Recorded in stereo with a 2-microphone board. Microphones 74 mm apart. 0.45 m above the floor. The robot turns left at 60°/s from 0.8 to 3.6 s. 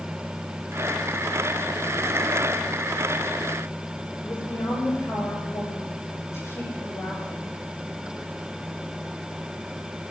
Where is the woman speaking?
40° left (ahead or behind), 6.5 m.